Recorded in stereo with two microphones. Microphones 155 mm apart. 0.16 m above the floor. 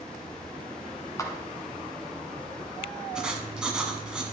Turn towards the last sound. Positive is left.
turn(degrees=-5)  # may be behind; listen again after turning